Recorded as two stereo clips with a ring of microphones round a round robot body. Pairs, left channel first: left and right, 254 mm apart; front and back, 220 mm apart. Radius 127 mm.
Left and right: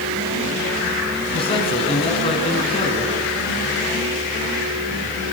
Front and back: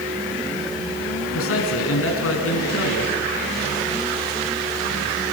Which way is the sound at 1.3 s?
20° left.